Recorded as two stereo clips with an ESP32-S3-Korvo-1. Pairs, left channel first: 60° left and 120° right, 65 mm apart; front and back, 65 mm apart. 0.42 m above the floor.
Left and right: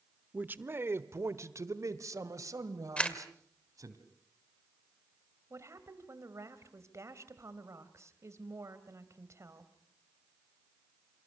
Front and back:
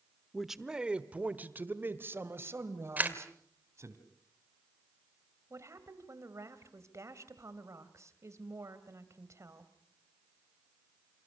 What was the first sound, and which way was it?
A man speaking, 90° right.